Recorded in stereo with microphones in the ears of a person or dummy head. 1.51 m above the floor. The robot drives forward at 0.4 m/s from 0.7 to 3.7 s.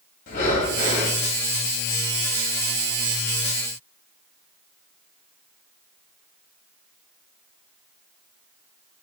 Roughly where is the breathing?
Left.